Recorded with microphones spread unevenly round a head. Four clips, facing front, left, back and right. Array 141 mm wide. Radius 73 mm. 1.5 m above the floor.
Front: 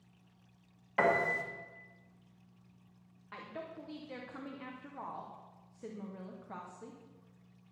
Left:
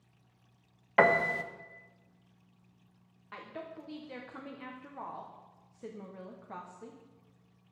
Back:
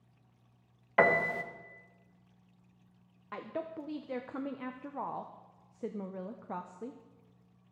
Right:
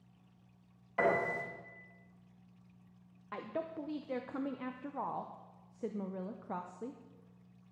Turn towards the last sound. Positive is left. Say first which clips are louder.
# right 4 dB, back 6 dB
turn(degrees=-145)